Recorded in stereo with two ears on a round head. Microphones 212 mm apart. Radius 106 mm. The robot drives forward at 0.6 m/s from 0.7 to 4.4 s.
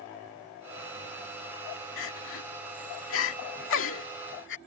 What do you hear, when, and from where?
2.0 s crying: 60° left (ahead or behind); by 4.6 s 55° left (ahead or behind)